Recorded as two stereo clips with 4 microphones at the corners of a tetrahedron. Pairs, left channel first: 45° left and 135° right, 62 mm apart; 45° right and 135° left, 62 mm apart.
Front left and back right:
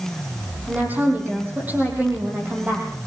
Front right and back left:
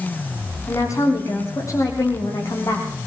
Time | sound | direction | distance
0.7 | a woman speaking | 75° right | 6.5 m